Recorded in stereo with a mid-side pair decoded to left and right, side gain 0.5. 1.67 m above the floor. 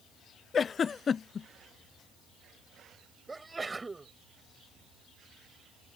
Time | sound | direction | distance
0.5 | a giggle | 40° left | ?
3.3 | a sneeze | 20° right | ?